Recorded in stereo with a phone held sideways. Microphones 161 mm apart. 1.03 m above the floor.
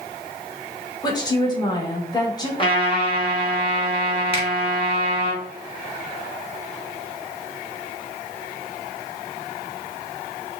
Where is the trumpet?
30° left (ahead or behind), 1.3 m.